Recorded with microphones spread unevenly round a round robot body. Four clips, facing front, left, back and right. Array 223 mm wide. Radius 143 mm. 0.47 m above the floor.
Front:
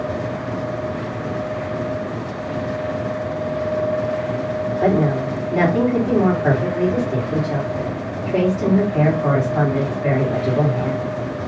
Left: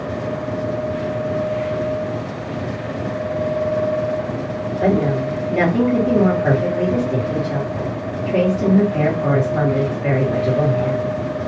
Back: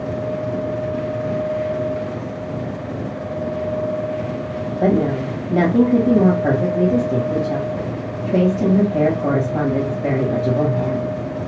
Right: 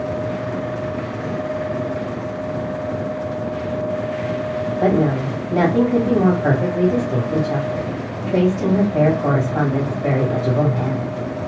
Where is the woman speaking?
145° right, 1.4 m.